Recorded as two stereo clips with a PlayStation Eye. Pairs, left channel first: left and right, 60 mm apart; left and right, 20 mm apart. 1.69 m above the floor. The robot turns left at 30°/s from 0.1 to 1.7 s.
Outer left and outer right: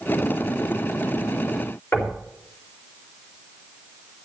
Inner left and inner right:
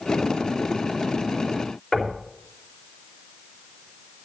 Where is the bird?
No bird in this recording.